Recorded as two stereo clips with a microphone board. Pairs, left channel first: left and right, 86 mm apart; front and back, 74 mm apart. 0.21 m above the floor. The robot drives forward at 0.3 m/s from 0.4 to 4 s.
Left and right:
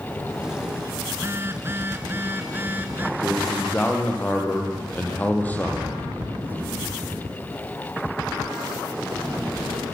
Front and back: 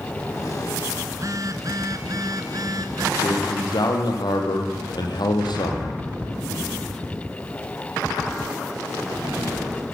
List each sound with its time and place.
1.1 s a phone buzzing: 145° right, 1.6 m; by 3.1 s 155° right, 2 m
3.2 s a man speaking: 20° left, 6 m